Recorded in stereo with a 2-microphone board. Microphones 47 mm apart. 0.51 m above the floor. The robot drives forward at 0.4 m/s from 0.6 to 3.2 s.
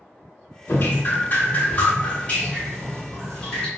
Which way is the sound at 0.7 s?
60° left (ahead or behind).